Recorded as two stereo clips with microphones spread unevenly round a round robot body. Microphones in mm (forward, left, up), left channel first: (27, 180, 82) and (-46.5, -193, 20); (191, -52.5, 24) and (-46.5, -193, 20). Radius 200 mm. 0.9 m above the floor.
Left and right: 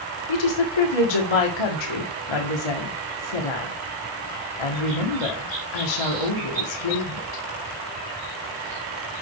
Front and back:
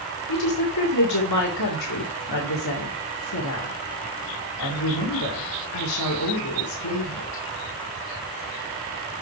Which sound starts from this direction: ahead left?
A woman speaking, at 0.3 s.